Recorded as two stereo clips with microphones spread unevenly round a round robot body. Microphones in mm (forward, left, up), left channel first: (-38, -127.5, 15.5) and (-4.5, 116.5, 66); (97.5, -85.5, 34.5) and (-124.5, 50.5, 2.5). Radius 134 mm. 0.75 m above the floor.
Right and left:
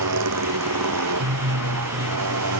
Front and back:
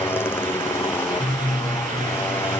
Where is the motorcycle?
50° left.